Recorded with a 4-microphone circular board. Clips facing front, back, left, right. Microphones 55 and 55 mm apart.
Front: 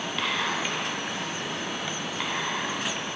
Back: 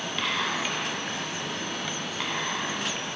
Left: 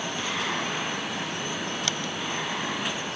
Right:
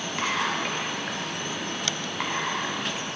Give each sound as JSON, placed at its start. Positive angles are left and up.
{"t": 0.2, "sound": "whispering", "azimuth_deg": -90, "distance_m": 0.7}